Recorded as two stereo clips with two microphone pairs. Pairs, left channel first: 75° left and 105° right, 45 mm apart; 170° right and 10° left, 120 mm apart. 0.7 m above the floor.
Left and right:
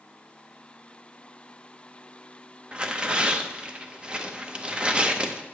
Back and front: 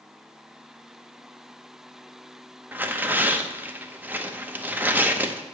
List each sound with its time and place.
2.7 s tearing paper: 60° right, 0.7 m